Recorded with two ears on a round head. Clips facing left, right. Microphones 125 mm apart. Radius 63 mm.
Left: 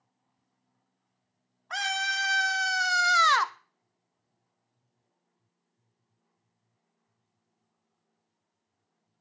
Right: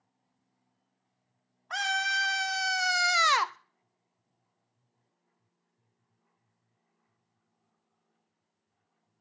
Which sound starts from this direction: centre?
A scream, at 1.7 s.